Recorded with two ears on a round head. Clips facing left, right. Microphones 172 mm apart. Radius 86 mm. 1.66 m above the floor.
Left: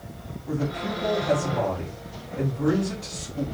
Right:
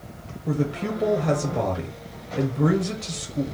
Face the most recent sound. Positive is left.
turn(degrees=-75)  # may be behind; listen again after turning